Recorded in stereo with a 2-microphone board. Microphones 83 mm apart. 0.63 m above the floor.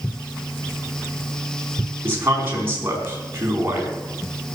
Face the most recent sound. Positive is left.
turn(degrees=-25)  # may be behind; listen again after turning